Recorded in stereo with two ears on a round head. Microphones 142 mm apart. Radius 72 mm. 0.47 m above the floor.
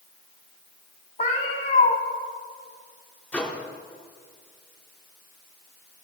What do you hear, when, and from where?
1.2 s a cat meowing: 45° left (ahead or behind), 1.1 m
3.3 s a microwave: 10° left (ahead or behind), 0.9 m